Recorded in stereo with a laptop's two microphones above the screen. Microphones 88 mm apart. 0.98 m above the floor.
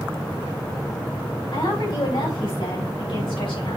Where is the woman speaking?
60° left (ahead or behind), 5 m; by 3.8 s 80° left, 5.5 m.